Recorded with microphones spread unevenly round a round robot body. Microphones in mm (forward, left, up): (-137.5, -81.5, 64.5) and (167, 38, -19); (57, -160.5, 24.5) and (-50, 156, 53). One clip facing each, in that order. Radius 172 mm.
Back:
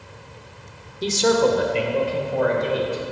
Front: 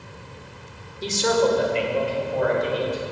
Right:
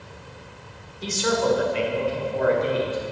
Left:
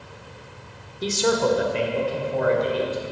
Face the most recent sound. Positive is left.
turn(degrees=155)